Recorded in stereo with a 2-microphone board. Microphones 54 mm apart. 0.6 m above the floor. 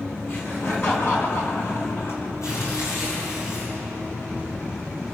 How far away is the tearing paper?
About 9.5 m.